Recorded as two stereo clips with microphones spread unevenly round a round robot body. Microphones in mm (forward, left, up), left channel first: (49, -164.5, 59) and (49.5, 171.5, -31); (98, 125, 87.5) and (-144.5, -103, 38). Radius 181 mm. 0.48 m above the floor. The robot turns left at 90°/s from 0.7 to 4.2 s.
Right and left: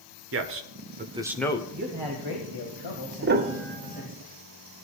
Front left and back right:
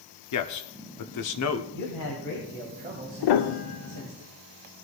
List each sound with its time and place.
0.3 s a man speaking: 75° left, 1.1 m; by 1.6 s 10° right, 1.1 m
1.7 s a man speaking: 35° left, 2.5 m; by 4.2 s 175° left, 2.5 m
3.2 s a piano: 50° left, 0.9 m; by 4.1 s 30° right, 0.9 m